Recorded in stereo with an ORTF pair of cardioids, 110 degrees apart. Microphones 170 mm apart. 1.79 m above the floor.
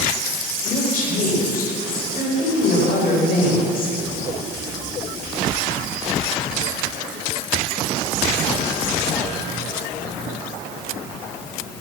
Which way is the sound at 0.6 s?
55° left.